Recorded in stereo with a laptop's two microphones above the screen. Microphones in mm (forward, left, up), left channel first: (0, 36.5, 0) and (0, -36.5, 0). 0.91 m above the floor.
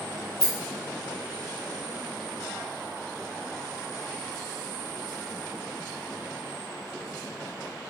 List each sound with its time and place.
0.4 s a rattle: 10° left (ahead or behind), 0.9 m